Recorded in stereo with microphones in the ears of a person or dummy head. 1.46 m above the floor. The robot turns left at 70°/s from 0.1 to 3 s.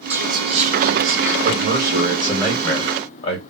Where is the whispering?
15° right, 1.5 m; by 1.3 s 100° right, 1.5 m.